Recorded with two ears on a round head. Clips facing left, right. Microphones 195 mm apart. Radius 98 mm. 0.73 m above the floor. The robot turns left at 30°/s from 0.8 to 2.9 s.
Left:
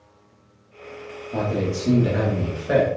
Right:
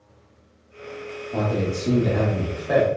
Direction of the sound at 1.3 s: Centre (ahead or behind).